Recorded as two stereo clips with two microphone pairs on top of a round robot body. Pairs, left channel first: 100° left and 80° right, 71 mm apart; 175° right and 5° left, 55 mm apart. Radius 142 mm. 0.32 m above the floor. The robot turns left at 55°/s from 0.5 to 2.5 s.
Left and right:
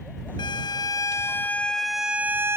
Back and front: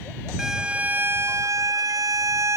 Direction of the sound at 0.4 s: 85° left.